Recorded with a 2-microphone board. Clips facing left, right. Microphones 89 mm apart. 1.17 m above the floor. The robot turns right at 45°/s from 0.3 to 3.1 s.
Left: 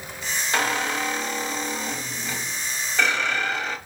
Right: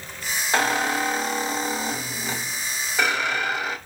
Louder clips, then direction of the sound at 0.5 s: Right 3 dB; 135° right.